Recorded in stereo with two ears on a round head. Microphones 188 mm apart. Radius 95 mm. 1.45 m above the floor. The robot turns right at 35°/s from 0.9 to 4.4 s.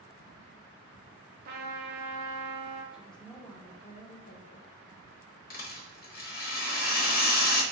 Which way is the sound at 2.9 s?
5° right.